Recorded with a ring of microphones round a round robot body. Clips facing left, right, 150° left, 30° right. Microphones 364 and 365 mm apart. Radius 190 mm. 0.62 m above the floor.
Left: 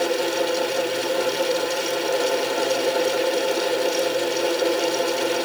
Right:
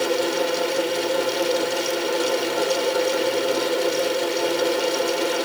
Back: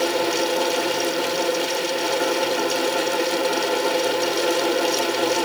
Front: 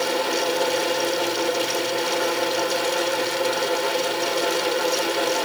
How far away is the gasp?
I don't hear a gasp.